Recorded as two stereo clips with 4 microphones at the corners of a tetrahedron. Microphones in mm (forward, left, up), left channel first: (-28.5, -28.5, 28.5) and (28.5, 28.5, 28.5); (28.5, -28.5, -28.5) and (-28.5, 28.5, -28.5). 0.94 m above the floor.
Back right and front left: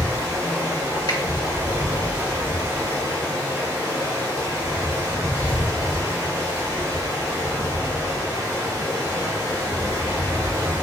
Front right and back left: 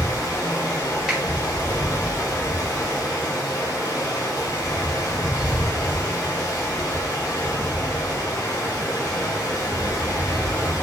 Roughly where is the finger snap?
Behind right.